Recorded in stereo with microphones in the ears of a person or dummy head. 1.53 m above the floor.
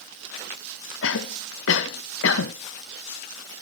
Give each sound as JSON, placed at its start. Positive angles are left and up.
{"t": 1.0, "sound": "a cough", "side_deg": 70, "distance_m": 1.7}